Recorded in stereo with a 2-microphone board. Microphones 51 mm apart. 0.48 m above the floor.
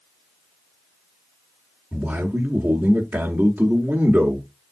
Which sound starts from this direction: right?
A man speaking, at 1.9 s.